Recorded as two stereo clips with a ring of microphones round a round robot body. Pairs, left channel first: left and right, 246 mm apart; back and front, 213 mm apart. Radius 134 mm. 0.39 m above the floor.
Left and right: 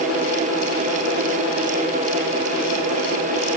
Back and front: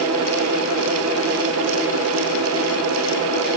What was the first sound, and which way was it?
Only background noise.